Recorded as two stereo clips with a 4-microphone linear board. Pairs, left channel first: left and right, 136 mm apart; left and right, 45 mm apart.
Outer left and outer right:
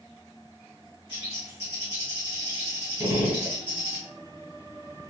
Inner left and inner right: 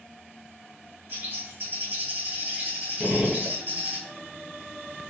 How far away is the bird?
About 2 m.